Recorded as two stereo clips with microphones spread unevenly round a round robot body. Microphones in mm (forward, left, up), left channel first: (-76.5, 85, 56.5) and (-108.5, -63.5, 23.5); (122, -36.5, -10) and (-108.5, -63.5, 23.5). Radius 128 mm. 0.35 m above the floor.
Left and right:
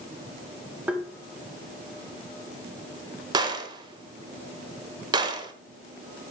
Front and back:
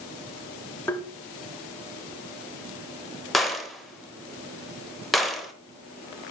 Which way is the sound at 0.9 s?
55° right.